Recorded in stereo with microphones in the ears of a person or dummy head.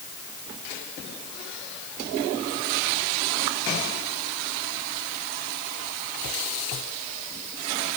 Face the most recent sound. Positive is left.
No sound to turn to.